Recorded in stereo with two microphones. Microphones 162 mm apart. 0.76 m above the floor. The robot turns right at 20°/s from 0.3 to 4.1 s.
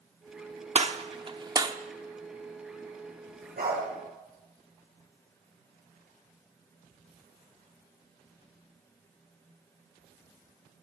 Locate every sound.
0.8 s a gunshot: 45° right (ahead or behind), 0.9 m; by 1.8 s 25° right (ahead or behind), 0.9 m
3.6 s a dog barking: 75° right (ahead or behind), 6 m; by 3.8 s 80° right, 6 m